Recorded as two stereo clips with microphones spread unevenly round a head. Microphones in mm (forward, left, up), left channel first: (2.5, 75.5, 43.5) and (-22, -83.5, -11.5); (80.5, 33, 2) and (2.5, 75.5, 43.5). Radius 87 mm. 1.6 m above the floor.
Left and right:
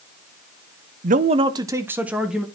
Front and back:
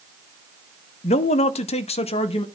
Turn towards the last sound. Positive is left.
turn(degrees=0)